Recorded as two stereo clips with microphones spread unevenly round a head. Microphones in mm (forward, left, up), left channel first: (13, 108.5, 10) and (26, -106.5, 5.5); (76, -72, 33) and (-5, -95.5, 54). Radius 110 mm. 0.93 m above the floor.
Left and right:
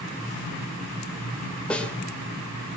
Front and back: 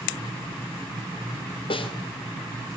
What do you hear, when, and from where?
1.7 s a snare drum: 10° left, 2.5 m